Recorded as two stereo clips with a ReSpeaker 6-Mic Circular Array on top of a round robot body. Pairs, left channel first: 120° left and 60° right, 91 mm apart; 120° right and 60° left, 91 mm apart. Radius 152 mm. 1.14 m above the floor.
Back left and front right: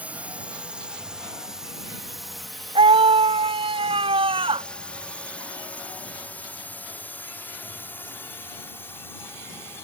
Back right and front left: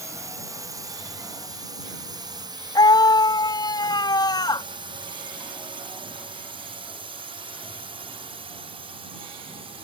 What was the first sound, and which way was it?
A drone, 10° left.